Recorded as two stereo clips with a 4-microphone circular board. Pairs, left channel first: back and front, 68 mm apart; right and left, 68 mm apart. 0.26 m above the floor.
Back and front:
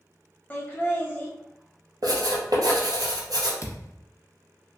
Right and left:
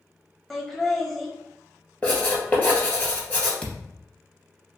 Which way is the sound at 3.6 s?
160° right.